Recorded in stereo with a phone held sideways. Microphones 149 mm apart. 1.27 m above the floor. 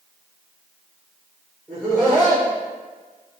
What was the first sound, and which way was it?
Laughter, centre (ahead or behind).